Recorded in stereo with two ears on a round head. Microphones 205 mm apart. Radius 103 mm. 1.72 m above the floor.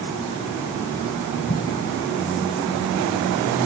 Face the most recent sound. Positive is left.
turn(degrees=25)  # may be behind; listen again after turning